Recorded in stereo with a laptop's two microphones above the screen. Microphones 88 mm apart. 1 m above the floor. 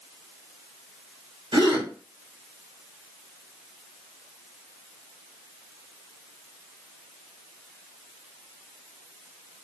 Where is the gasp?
65° right (ahead or behind), 1.1 m.